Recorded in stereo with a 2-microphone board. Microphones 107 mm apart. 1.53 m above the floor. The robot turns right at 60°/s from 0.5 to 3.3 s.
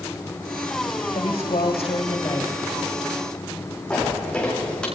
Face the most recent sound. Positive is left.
turn(degrees=10)  # may be behind; listen again after turning